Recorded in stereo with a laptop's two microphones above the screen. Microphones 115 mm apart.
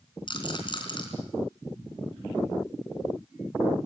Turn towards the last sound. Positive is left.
turn(degrees=45)  # may be behind; listen again after turning